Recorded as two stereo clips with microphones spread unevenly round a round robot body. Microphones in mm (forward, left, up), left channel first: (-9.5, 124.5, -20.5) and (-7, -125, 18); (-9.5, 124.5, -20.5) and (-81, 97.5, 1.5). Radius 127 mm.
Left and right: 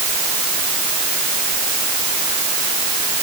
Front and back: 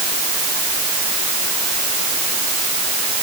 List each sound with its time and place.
Only background noise.